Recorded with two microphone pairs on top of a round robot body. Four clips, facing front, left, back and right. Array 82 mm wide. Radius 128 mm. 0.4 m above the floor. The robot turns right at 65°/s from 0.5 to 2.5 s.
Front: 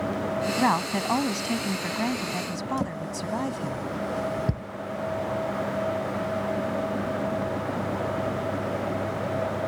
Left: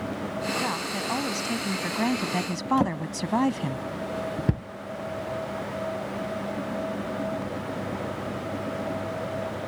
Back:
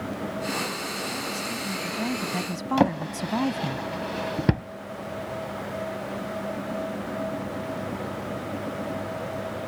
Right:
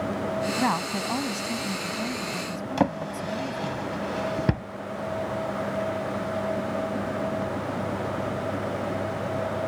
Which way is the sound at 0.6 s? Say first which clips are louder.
Right 4 dB, front 7 dB; 30° right.